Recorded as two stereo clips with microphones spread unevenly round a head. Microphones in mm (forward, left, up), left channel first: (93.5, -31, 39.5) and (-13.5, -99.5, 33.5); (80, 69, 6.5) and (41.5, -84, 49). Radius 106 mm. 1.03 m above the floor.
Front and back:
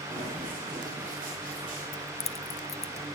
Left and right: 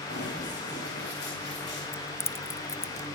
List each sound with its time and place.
0.1 s running footsteps: 135° left, 6.5 m; by 1.8 s 120° left, 7 m
1.9 s keys jangling: 5° right, 0.7 m